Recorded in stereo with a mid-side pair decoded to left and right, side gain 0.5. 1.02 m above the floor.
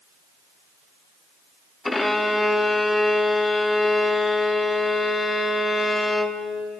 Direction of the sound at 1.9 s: 15° left.